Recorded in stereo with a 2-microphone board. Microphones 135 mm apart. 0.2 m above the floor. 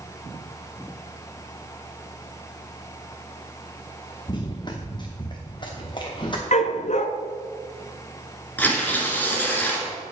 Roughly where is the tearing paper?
Centre.